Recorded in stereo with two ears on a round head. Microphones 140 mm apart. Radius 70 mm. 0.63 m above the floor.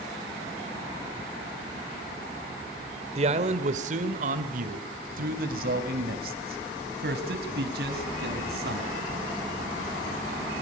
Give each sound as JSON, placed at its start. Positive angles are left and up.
{"t": 3.1, "sound": "a man speaking", "side_deg": -40, "distance_m": 2.0}